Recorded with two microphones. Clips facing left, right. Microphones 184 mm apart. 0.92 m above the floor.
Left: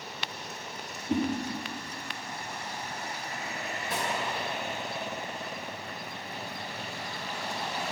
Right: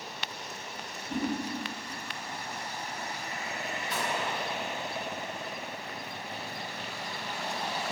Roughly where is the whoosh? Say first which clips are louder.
Left 6 dB; left.